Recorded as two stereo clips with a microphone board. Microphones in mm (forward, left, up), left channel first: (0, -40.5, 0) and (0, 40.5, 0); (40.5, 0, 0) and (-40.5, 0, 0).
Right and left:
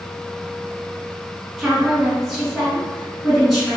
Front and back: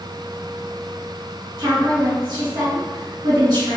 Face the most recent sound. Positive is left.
turn(degrees=175)